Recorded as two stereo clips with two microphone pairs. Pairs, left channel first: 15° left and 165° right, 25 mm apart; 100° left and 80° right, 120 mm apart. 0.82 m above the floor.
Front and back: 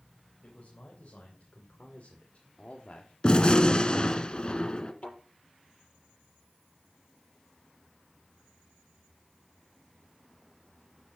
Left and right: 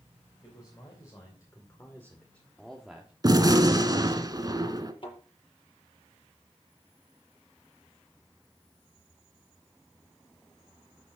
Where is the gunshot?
25° right, 1.3 m.